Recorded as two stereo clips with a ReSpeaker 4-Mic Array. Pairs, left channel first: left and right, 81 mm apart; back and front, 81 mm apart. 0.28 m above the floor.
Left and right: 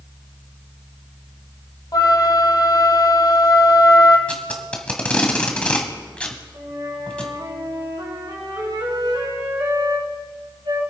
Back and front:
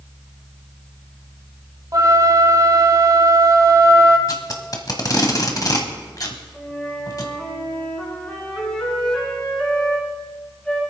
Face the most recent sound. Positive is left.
turn(degrees=-95)